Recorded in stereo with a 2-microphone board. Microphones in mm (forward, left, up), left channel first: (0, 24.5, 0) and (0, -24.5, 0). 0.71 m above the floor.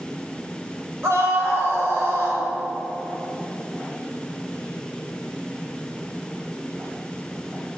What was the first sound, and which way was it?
A scream, 60° right (ahead or behind).